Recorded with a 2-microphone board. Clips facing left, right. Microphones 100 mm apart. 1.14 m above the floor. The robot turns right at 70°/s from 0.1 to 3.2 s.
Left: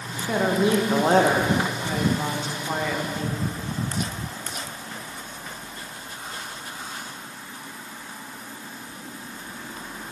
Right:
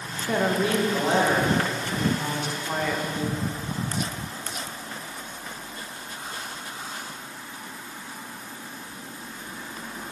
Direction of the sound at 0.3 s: 5° right.